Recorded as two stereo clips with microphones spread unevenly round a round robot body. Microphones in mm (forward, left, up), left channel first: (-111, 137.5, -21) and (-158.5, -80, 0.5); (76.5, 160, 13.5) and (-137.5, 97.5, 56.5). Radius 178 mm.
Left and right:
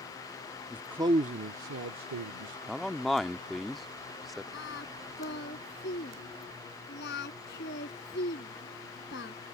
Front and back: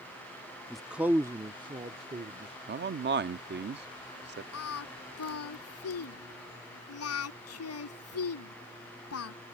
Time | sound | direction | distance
0.7 | a man speaking | 60° left | ?
2.7 | a man speaking | 160° left | ?
4.5 | singing | 15° left | ?